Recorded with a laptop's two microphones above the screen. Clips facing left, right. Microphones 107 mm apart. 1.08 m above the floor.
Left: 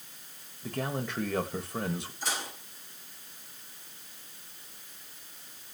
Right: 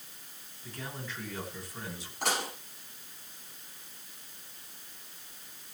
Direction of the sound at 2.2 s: 65° right (ahead or behind).